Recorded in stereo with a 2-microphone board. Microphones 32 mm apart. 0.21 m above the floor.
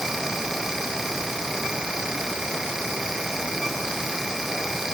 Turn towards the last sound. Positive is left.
No sound to turn to.